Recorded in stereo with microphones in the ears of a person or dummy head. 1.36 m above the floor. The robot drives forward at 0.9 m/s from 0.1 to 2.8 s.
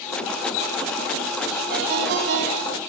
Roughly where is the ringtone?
Right.